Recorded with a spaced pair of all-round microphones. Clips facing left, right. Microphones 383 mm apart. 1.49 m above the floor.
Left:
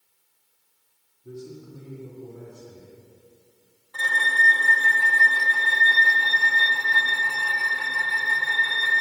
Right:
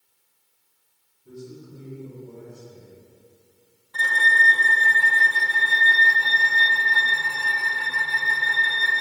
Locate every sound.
1.2 s a man speaking: 70° left (ahead or behind), 2.5 m
3.9 s a violin: 30° right (ahead or behind), 1.1 m